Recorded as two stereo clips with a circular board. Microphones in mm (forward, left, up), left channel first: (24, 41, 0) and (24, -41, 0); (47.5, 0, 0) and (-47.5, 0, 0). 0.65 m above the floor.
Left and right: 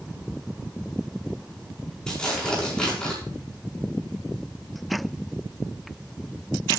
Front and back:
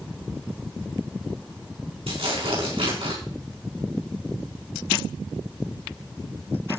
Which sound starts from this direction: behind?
Tearing paper, at 2.1 s.